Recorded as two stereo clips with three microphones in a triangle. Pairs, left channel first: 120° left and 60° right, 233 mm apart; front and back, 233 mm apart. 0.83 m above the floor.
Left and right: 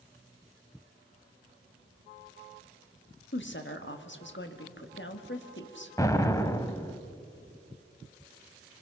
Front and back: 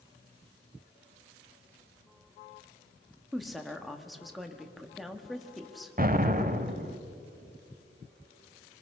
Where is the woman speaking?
90° left, 1.3 m.